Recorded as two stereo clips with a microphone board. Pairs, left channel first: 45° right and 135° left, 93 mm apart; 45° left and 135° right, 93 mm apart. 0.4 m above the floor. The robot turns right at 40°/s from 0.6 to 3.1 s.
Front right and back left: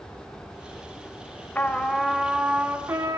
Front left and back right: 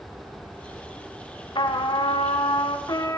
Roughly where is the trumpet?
Ahead left.